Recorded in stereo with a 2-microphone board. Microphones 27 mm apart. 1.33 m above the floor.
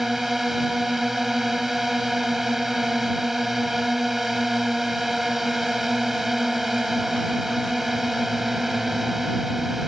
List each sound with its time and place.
0.0 s a drone: 5° right (ahead or behind)